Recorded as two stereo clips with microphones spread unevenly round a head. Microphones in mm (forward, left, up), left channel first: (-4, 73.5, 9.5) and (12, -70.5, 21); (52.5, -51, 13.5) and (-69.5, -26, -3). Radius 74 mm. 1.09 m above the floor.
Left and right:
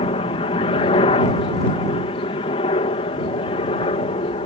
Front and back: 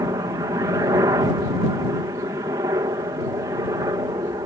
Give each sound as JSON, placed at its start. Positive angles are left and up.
{"t": 0.0, "sound": "a helicopter", "azimuth_deg": 120}